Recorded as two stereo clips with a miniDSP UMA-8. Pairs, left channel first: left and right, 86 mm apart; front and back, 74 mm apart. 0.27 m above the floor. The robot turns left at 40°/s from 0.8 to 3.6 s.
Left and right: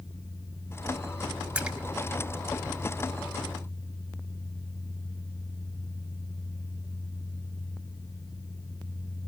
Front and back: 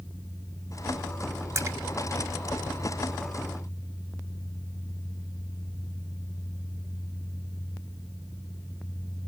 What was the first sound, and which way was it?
A splash, 160° right.